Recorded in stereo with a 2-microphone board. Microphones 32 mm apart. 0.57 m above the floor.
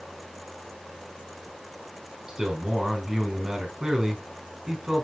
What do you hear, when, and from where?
2.3 s a man speaking: 20° right (ahead or behind), 5 m